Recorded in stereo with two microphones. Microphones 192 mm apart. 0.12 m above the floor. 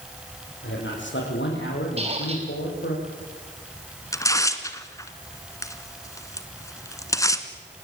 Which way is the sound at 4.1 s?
15° left (ahead or behind).